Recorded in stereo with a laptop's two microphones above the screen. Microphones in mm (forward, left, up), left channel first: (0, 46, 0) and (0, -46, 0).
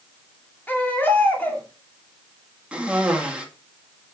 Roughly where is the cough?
Centre.